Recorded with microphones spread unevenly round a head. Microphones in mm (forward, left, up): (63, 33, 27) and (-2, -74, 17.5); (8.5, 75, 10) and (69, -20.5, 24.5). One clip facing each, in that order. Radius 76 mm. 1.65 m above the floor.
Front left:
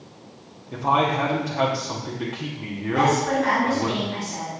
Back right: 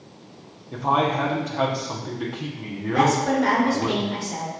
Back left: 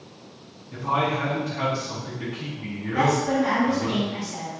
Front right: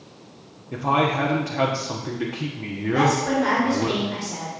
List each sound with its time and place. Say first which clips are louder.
0.7 s a man speaking: even, front right 3 dB; 30° right, 1.2 m
2.9 s a woman speaking: back right 1 dB, front right 1 dB; 95° right, 3.5 m